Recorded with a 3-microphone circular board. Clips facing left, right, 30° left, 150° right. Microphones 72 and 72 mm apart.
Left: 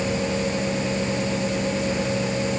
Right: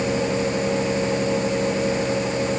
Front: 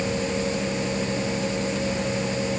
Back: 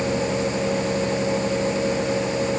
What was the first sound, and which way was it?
Only background noise.